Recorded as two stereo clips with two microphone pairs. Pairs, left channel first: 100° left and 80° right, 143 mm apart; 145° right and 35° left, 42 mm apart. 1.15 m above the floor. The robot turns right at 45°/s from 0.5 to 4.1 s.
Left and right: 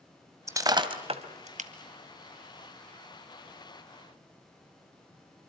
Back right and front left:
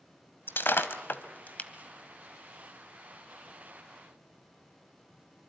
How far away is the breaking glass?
About 1.7 m.